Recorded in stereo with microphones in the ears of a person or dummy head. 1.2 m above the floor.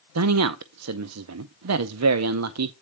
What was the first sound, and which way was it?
A man speaking, 80° right.